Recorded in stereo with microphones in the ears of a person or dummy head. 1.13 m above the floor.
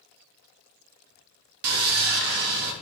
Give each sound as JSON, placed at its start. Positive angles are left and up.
{"t": 1.6, "sound": "sawing", "side_deg": -55, "distance_m": 0.8}